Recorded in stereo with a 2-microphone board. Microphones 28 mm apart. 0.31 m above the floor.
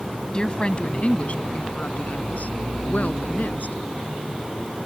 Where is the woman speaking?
30° left (ahead or behind); by 3.8 s 75° left (ahead or behind).